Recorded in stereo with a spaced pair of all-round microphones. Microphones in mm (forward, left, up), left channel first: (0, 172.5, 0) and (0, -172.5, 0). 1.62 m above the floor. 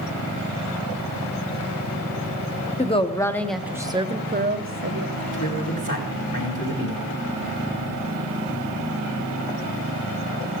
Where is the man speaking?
60° left (ahead or behind), 5 m.